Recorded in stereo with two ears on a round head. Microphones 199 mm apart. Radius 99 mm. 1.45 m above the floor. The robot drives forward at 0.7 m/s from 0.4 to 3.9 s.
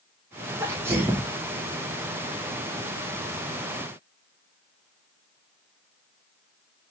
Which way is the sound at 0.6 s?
15° right (ahead or behind).